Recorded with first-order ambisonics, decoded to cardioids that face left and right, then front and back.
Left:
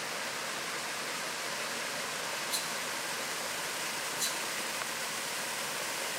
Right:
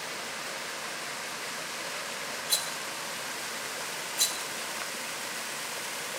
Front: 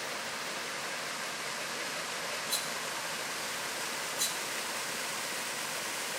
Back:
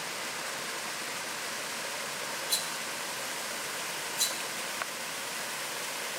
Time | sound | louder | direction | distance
2.5 | a rattle | right 3 dB, back 1 dB | 110° right | 3 m